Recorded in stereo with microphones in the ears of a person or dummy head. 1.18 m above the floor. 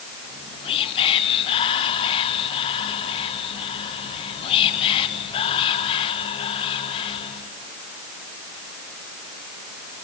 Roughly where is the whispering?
Left.